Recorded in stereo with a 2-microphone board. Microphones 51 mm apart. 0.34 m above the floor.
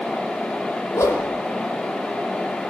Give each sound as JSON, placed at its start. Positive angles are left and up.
{"t": 0.9, "sound": "a whoosh", "side_deg": 80, "distance_m": 8.0}